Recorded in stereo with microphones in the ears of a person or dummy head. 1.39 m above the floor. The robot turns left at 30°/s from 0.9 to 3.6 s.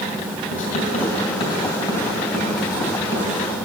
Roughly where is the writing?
Left.